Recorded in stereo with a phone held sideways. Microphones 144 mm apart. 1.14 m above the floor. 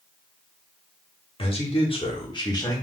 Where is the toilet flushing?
I don't hear a toilet flushing.